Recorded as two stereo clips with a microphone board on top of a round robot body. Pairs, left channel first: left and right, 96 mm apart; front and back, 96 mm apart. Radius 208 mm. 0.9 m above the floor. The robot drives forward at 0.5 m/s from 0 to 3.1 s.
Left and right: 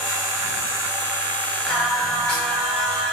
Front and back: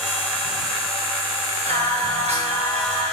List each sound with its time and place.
1.7 s singing: 175° left, 1.8 m; by 3.1 s straight behind, 2.5 m